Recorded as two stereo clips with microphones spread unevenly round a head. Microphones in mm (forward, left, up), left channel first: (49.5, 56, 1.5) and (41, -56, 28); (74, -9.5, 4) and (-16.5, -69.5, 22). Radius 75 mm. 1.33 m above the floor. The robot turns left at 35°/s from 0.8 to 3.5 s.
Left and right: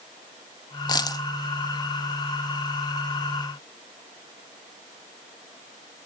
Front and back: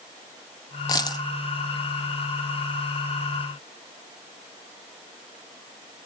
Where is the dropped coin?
55° left, 0.7 m; by 1.2 s 45° left, 0.7 m.